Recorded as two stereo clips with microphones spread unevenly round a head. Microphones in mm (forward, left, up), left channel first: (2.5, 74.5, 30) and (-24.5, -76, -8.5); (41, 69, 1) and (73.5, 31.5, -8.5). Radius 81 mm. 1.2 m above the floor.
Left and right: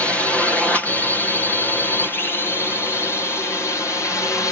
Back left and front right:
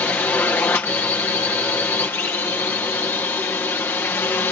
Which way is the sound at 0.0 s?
175° left.